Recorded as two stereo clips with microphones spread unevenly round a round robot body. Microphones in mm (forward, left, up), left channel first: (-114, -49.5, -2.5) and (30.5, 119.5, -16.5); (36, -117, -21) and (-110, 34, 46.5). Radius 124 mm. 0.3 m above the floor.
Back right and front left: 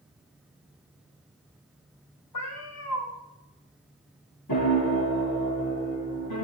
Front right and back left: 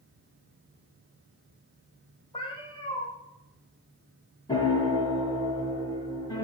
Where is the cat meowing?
115° right, 10 m.